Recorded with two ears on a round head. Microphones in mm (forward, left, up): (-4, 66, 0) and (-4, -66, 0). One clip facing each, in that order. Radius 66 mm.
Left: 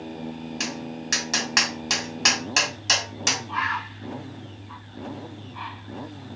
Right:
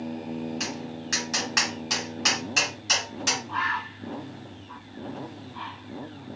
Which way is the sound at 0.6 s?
65° left (ahead or behind).